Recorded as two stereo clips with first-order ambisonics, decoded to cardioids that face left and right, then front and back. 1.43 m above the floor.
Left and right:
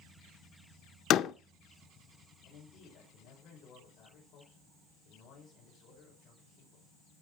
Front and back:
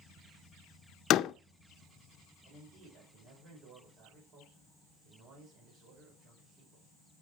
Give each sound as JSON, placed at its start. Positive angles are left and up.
{"t": 1.1, "sound": "a door slam", "azimuth_deg": 45, "distance_m": 0.5}
{"t": 2.4, "sound": "a man speaking", "azimuth_deg": 135, "distance_m": 5.5}